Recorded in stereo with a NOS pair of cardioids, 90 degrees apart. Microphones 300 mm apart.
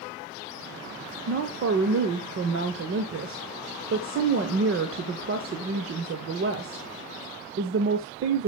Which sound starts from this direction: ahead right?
A woman speaking, at 1.3 s.